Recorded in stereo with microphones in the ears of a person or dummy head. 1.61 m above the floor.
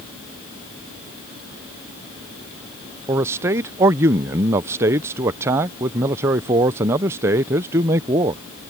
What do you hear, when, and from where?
3.1 s a man speaking: 15° right (ahead or behind)